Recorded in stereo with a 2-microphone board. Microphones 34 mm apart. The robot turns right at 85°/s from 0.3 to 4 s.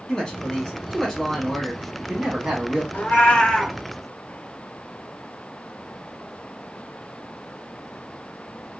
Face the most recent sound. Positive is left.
turn(degrees=-170)